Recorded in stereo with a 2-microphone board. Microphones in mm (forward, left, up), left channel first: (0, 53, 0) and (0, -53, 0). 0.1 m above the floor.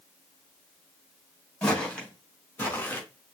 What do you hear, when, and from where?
1.6 s footsteps: 10° left (ahead or behind), 4 m; by 3.0 s 20° left (ahead or behind), 3.5 m